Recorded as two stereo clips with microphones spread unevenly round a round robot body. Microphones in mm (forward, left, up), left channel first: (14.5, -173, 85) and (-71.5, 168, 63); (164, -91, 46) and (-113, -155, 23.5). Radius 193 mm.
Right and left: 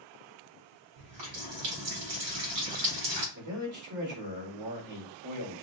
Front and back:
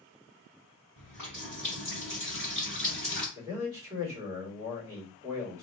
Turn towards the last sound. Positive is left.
turn(degrees=120)